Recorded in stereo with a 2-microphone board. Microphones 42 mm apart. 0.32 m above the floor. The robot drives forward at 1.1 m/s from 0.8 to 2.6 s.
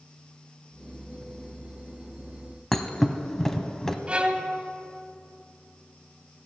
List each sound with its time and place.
2.7 s a thud: 10° left (ahead or behind), 0.7 m
4.1 s a violin: 30° right (ahead or behind), 0.8 m